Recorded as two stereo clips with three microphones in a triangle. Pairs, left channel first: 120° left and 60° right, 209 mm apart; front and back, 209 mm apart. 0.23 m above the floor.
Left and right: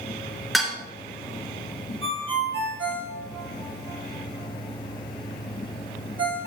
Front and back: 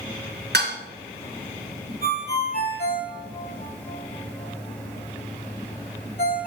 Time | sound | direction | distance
0.5 | dishes clattering | 150° right | 2 m
2.0 | a ringtone | 45° right | 4 m